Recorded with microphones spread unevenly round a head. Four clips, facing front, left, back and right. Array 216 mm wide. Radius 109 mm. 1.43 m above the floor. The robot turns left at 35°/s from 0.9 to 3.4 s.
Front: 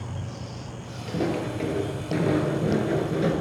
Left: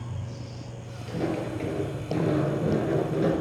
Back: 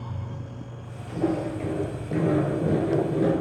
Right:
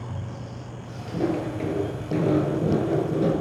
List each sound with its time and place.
1.1 s footsteps: 25° right, 2 m; by 3.4 s 65° right, 1.3 m